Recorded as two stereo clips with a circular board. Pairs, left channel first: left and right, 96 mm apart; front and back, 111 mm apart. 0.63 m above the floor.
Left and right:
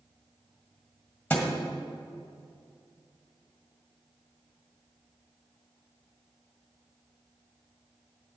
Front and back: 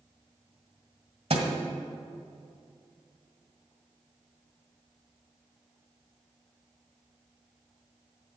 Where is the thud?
165° left, 1.8 m.